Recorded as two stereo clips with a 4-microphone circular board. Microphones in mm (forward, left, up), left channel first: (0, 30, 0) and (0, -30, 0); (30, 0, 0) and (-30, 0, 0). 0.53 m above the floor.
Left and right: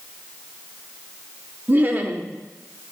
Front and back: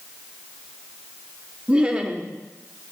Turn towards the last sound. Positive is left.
turn(degrees=-120)